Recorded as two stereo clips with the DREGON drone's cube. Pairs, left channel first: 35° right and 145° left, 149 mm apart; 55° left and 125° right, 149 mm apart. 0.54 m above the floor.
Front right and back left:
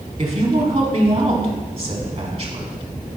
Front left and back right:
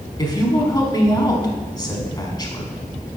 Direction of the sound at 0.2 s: 110° left.